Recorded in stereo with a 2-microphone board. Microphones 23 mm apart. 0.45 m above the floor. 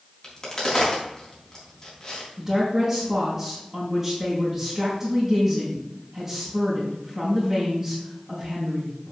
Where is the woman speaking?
20° right (ahead or behind), 4 m.